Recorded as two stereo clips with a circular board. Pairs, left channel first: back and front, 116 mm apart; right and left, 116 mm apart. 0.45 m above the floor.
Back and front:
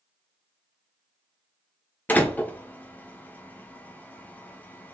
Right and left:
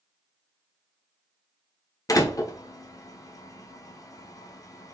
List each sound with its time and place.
2.1 s a door slam: 115° right, 0.6 m